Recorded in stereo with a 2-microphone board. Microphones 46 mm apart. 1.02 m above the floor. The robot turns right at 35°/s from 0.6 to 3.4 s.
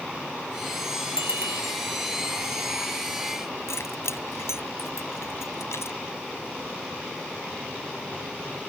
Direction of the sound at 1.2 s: 60° right (ahead or behind).